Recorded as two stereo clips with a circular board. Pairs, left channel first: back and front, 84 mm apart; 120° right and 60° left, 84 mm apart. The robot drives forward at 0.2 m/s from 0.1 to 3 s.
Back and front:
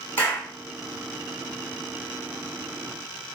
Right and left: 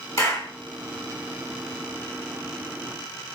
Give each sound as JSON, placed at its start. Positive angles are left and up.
{"t": 0.2, "sound": "a clap", "azimuth_deg": -130, "distance_m": 1.4}